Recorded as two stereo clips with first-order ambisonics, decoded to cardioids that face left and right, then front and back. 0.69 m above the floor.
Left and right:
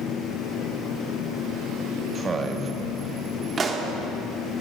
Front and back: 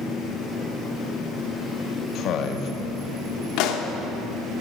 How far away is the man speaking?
About 0.8 m.